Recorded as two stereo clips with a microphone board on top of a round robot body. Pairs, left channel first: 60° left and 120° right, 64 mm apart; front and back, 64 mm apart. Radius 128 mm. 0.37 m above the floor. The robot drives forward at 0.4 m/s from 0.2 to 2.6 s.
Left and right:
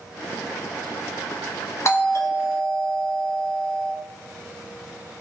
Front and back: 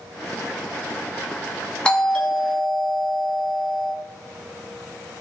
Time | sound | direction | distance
1.9 | a doorbell | 75° left | 1.7 m